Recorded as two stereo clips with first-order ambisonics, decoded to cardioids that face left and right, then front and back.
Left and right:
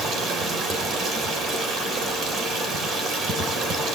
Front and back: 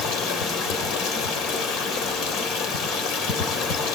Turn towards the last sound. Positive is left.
turn(degrees=-40)